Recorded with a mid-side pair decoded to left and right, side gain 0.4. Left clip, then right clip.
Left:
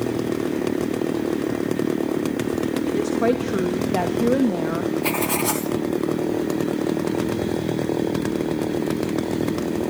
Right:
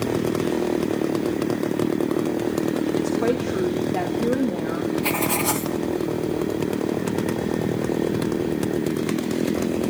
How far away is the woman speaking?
About 2.5 m.